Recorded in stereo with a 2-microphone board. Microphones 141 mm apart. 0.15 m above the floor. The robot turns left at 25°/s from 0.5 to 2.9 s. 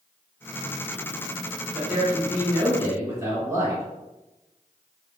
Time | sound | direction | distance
1.8 | a man speaking | 10° right (ahead or behind) | 1.7 m